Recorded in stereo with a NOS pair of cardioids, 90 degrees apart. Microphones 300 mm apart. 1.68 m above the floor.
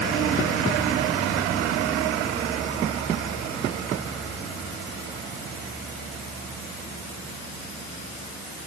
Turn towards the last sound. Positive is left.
No sound to turn to.